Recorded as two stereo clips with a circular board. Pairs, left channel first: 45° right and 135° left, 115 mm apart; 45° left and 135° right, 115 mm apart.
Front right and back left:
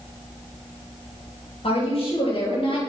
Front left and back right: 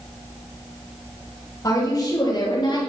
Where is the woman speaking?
15° right, 5 m; by 2.8 s 5° right, 5.5 m.